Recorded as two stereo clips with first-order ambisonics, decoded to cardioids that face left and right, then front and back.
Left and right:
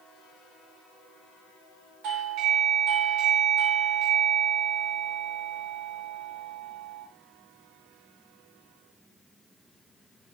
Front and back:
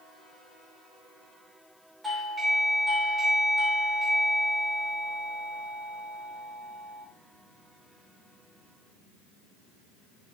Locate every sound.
2.0 s a doorbell: 100° right, 2 m